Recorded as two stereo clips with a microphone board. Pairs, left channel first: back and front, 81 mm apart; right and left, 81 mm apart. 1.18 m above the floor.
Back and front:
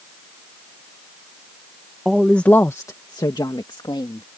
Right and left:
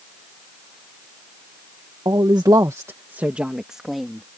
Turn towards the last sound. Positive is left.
turn(degrees=180)